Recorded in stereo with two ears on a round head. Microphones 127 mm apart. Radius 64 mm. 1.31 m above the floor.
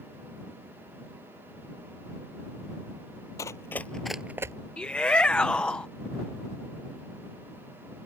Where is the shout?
10° left (ahead or behind).